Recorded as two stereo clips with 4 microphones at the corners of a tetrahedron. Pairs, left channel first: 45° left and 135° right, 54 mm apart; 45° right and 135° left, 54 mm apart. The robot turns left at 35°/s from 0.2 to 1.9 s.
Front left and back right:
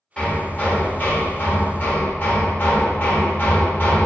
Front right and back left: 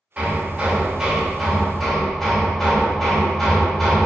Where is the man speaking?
No man speaking in this recording.